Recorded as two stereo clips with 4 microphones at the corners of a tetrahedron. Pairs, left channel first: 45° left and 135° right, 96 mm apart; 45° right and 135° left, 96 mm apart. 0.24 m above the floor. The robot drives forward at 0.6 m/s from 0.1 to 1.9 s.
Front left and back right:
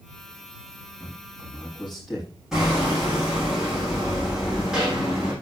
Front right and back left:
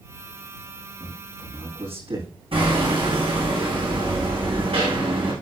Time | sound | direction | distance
1.0 | a man speaking | 130° left | 8.5 m
2.5 | hammering | 140° left | 7 m